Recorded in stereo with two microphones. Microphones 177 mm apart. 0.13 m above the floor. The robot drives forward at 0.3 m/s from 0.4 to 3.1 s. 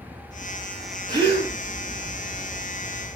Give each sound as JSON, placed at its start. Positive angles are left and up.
{"t": 1.1, "sound": "a gasp", "side_deg": -25, "distance_m": 1.6}